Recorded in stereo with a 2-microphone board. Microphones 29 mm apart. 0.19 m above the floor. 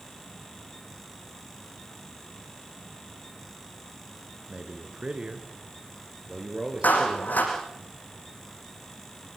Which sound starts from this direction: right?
A man speaking, at 4.5 s.